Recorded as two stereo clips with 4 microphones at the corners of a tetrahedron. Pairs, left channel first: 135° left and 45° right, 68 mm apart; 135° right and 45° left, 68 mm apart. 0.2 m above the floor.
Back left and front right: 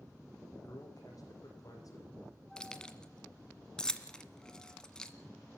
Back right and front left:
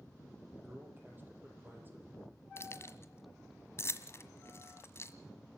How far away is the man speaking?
About 6.5 m.